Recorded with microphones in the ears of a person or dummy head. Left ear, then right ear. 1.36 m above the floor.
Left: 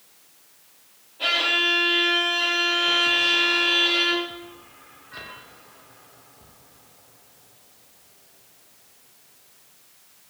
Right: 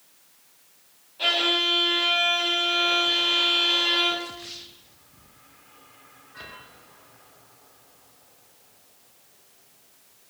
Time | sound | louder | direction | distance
1.2 | a violin | left 1 dB | 40° right (ahead or behind) | 6 m